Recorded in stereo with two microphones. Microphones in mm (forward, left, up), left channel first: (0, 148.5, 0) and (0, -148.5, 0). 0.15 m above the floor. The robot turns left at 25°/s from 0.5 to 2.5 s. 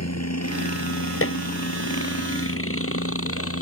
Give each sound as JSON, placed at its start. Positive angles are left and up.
{"t": 0.0, "sound": "a helicopter", "side_deg": 60}
{"t": 1.2, "sound": "dishes clattering", "side_deg": 50}